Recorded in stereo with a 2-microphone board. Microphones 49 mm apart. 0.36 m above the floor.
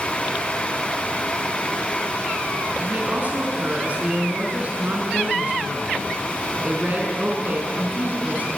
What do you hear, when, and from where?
2.8 s a woman speaking: 35° right (ahead or behind), 3.5 m